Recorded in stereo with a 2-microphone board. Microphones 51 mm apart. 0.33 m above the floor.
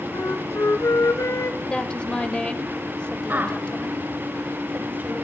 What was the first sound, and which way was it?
A flute, 75° left (ahead or behind).